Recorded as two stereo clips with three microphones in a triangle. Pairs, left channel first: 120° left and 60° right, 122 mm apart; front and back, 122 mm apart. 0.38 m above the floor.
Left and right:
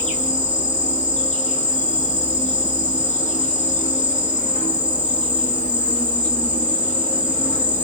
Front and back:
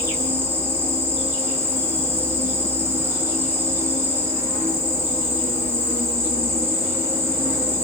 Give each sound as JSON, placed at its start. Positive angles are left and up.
{"t": 0.0, "sound": "an insect", "azimuth_deg": 110, "distance_m": 2.0}